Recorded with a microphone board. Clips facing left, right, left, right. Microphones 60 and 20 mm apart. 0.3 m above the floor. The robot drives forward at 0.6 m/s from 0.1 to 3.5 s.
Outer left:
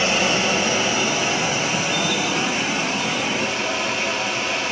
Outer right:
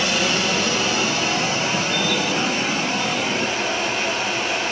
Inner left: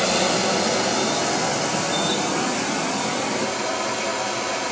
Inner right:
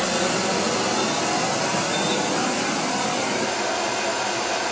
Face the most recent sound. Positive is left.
turn(degrees=10)  # may be behind; listen again after turning